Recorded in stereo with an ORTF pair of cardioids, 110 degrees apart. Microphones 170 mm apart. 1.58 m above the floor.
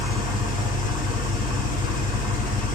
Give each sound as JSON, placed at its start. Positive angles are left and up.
{"t": 0.0, "sound": "an engine running", "azimuth_deg": 55, "distance_m": 0.8}